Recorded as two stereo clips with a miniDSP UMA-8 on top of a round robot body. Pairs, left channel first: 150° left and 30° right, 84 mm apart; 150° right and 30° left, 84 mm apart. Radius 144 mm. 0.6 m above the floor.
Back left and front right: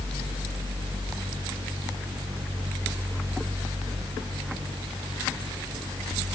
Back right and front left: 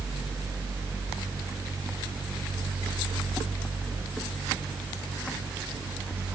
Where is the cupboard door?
No cupboard door in this recording.